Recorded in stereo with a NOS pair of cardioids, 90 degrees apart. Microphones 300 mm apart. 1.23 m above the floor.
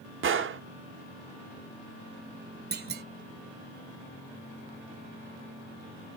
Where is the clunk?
35° right, 1.2 m.